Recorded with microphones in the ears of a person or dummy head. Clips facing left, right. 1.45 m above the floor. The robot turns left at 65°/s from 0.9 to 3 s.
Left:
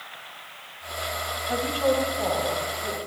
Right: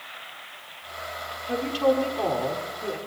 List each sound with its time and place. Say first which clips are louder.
1.5 s a woman speaking: right 1 dB; 55° right, 4 m; by 3.0 s 150° right, 4 m